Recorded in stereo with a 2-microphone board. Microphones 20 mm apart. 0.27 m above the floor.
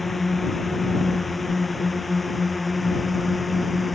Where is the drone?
Centre (ahead or behind); by 4.0 s 5° right (ahead or behind).